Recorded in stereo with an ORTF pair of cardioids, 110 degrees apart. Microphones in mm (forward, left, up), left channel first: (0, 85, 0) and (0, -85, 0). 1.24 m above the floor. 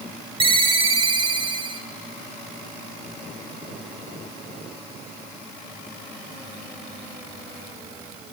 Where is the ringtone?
30° right, 2.5 m.